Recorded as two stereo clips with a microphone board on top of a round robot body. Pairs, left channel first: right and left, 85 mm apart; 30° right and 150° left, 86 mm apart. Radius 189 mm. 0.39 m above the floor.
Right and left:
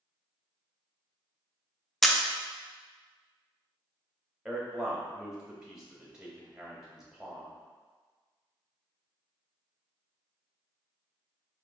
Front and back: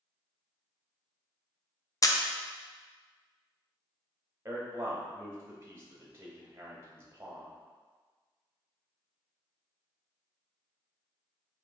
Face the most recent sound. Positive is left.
turn(degrees=165)